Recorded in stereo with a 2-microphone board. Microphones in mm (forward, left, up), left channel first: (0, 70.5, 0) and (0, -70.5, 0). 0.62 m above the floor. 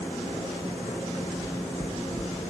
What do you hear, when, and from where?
1.4 s knocking: 45° right (ahead or behind), 4 m